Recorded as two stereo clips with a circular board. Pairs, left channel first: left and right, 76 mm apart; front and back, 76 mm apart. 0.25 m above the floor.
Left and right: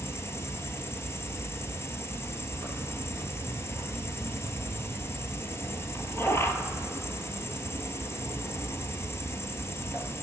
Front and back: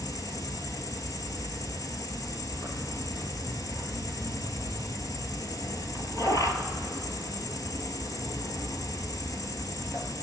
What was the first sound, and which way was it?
An insect, 40° left.